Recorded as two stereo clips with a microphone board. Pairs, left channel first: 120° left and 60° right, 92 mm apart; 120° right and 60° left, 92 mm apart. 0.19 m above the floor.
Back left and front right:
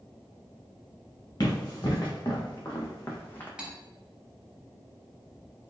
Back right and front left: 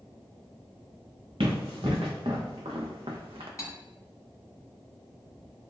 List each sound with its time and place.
1.4 s running footsteps: 75° left, 1.6 m; by 3.5 s 50° left, 0.6 m
3.6 s cutlery clinking: 135° right, 0.7 m